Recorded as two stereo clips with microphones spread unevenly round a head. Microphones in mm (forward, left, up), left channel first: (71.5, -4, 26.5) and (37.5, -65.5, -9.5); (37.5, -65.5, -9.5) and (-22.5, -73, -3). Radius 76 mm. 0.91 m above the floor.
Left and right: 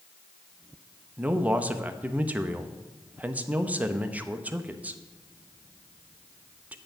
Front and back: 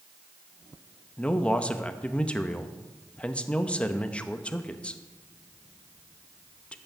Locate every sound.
1.2 s a man speaking: 60° right, 0.7 m